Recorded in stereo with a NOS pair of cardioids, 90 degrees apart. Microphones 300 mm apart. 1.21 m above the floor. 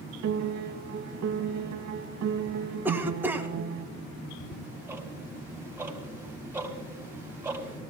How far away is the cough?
About 1.8 m.